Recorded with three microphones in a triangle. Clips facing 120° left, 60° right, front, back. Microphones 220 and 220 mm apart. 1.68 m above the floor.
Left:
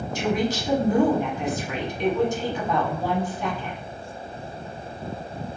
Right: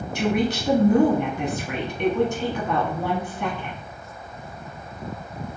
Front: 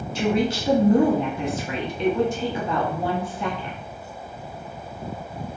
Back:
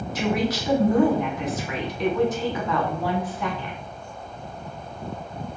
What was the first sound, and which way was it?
A woman speaking, 60° right.